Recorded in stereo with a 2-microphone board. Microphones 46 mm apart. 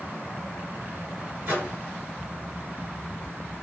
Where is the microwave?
70° right (ahead or behind), 2 m.